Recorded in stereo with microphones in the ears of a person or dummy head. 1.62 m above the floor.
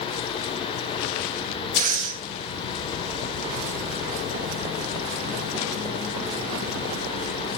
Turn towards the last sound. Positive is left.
turn(degrees=-45)  # may be behind; listen again after turning